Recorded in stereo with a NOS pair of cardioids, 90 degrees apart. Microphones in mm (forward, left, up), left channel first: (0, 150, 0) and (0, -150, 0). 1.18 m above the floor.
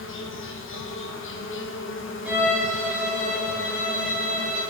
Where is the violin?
5° right, 3 m.